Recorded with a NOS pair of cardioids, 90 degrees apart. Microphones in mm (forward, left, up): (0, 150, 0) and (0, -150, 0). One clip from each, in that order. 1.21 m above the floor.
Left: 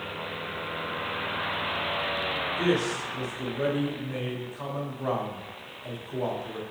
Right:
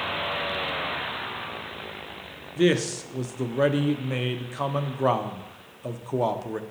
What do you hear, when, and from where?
2.6 s a man speaking: 40° right, 0.8 m